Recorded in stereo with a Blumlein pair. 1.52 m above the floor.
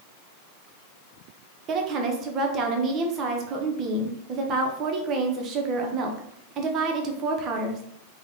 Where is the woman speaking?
30° right, 0.8 m.